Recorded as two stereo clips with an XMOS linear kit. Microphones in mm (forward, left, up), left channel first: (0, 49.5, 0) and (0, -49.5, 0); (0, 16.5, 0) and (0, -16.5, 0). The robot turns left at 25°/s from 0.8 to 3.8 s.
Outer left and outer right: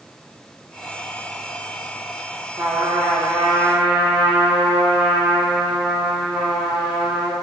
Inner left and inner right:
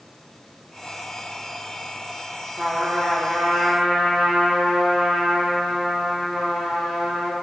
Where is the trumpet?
130° right, 1.4 m; by 7.3 s 160° right, 1.4 m.